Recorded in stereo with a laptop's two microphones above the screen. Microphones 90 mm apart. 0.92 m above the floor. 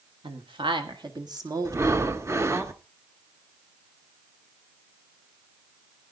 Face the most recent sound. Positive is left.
turn(degrees=-30)  # may be behind; listen again after turning